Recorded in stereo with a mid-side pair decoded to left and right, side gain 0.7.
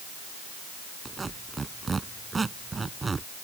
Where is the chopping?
I don't hear chopping.